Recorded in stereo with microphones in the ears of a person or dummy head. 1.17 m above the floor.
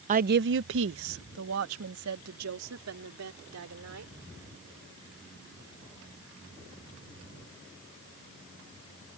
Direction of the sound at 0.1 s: 35° right (ahead or behind).